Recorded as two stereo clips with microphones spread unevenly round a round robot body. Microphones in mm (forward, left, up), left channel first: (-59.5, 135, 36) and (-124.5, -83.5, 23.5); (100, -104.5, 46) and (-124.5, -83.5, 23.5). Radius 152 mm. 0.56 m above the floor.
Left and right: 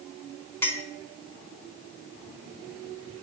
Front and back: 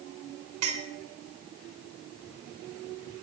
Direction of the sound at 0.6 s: 155° left.